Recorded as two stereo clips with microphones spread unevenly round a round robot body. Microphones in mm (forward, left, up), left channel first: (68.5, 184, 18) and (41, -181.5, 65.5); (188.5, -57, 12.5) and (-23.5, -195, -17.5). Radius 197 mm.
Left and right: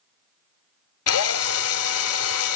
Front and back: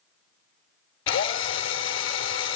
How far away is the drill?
About 1.0 m.